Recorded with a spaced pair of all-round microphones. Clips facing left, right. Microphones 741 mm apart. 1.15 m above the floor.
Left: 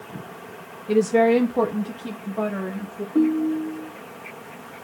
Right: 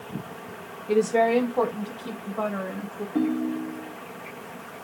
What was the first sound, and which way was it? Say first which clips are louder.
A woman speaking: left 4 dB; 35° left (ahead or behind).